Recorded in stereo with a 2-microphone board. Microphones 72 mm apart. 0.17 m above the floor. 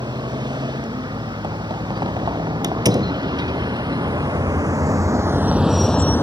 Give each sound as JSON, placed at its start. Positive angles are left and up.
{"t": 0.0, "sound": "a vehicle", "side_deg": -80}
{"t": 2.6, "sound": "a door slam", "side_deg": -65}